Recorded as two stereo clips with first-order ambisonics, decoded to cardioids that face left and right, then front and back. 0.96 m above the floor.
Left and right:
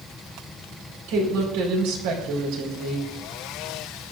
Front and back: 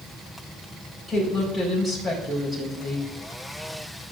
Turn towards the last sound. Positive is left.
turn(degrees=-100)